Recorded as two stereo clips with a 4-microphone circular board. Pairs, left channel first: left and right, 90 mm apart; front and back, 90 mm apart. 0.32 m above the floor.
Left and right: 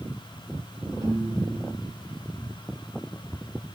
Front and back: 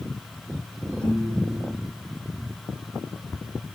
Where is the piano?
70° right, 2 m.